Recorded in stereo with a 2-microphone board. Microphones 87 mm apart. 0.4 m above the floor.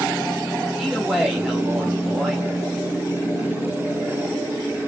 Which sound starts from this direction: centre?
A man speaking, at 0.8 s.